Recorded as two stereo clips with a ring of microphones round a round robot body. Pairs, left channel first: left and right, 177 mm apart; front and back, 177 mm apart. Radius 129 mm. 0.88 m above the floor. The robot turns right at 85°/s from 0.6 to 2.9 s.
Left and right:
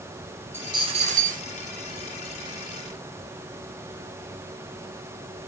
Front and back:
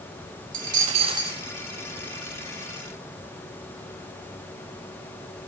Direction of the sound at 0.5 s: 165° right.